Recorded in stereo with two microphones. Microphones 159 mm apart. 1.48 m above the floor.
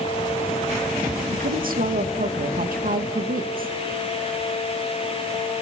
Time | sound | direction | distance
1.3 | a woman speaking | 65° right (ahead or behind) | 2.5 m